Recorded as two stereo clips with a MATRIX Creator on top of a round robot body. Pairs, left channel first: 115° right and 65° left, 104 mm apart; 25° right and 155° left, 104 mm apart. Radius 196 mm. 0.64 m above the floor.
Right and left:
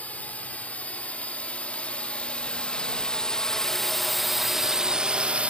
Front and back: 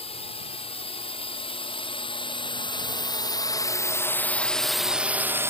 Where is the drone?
35° right; by 5.5 s 130° left.